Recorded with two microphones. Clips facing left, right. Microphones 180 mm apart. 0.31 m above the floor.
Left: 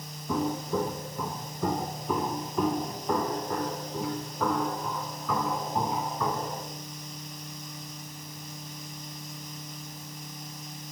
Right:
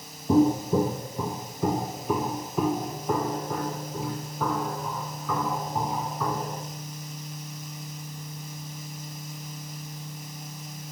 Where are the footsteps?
30° right (ahead or behind), 0.7 m; by 6.7 s centre (ahead or behind), 5 m.